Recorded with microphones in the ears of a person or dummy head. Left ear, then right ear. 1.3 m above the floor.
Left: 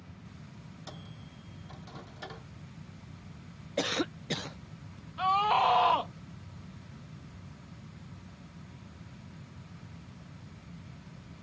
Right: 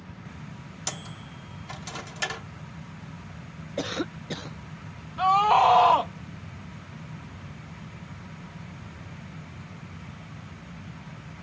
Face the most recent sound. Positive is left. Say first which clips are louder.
# right 7 dB
turn(degrees=-15)  # may be behind; listen again after turning